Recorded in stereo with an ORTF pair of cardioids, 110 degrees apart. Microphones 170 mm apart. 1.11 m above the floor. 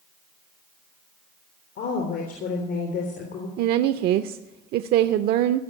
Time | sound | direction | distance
1.8 | a woman speaking | 70° left | 3.5 m
3.6 | a woman speaking | 70° right | 0.5 m